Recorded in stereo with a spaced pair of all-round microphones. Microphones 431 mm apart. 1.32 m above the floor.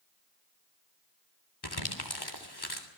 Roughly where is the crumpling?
Left.